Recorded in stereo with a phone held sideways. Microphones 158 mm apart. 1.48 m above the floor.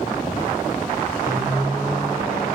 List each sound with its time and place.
1.3 s a microwave: 25° right (ahead or behind), 5 m